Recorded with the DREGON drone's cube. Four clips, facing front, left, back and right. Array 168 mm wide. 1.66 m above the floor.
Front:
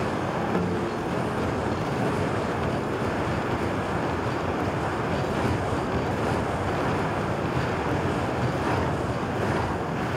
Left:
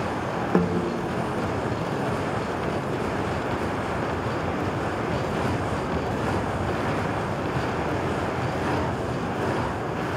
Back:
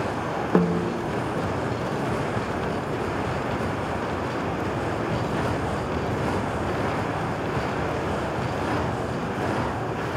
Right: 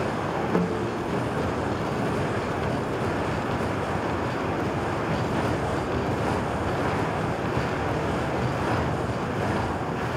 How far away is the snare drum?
About 0.5 m.